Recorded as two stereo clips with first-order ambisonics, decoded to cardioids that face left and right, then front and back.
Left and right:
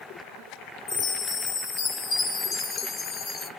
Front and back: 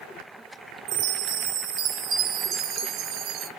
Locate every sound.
0.9 s a chime: 145° left, 0.7 m